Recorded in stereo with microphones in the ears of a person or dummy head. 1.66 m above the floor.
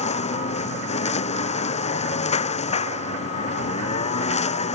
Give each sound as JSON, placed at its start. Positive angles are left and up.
{"t": 0.0, "sound": "a lawn mower", "side_deg": 45}